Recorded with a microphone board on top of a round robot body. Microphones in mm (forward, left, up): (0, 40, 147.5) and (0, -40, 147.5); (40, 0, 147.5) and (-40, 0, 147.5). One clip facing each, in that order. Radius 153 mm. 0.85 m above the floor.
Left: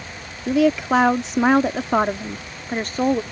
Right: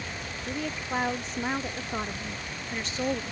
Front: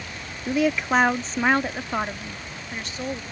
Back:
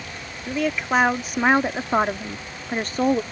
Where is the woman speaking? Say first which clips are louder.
Left 16 dB, front 2 dB; 85° left; by 3.2 s 140° left.